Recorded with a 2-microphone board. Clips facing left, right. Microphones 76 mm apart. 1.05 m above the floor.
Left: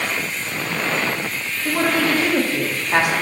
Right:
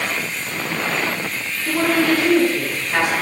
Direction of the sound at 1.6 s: 50° left (ahead or behind).